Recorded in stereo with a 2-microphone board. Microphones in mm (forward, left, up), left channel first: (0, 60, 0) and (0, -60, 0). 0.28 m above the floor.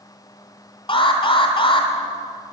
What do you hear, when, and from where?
0.9 s an alarm: 45° left (ahead or behind), 2.0 m